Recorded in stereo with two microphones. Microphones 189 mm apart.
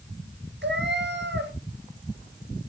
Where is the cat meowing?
70° right (ahead or behind), 2 m.